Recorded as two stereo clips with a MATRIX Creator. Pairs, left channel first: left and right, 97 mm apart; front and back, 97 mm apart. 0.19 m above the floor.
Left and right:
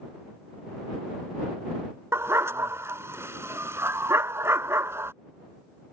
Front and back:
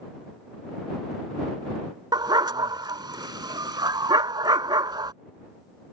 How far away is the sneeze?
No sneeze in this recording.